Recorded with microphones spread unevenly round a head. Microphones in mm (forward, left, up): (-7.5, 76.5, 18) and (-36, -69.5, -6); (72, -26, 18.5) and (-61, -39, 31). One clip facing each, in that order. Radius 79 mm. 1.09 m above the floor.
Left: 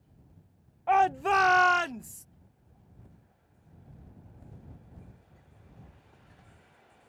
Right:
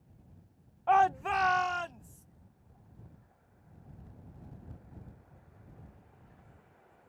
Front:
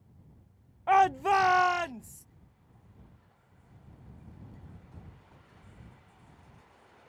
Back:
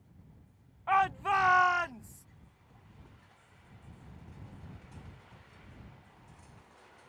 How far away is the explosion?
I don't hear an explosion.